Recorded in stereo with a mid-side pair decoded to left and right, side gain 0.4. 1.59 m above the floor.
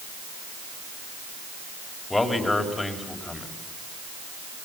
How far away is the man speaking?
About 5 m.